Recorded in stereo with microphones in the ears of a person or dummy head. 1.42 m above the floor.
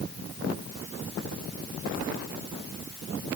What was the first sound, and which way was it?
Only background noise.